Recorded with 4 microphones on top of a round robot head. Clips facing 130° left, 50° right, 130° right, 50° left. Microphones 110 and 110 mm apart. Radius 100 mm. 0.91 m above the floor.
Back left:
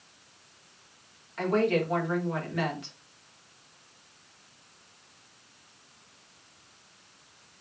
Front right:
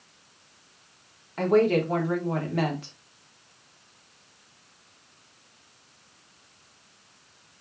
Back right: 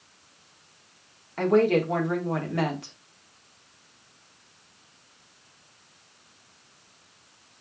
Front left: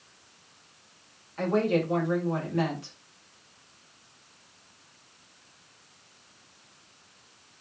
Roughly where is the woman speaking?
Right.